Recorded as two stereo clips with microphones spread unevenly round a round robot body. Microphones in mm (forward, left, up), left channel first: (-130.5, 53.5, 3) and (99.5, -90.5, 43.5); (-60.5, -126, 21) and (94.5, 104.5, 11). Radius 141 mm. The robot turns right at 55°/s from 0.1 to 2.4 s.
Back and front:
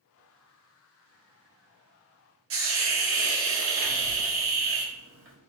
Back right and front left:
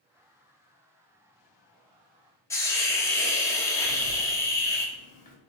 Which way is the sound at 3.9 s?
70° right.